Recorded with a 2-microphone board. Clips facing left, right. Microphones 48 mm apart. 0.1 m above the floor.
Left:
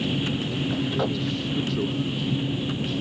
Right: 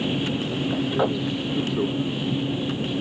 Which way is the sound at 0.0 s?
20° right (ahead or behind).